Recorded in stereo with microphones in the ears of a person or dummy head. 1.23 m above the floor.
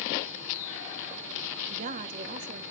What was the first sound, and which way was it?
A woman speaking, 40° right (ahead or behind).